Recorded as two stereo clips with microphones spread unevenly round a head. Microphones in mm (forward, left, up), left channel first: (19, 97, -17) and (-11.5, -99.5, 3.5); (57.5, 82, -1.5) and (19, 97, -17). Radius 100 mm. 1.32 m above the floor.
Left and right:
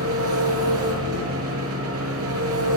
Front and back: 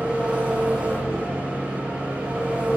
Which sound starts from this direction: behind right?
An engine running, at 0.0 s.